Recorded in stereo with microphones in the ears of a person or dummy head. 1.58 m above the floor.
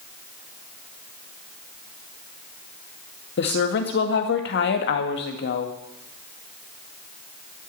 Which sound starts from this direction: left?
A woman speaking, at 3.4 s.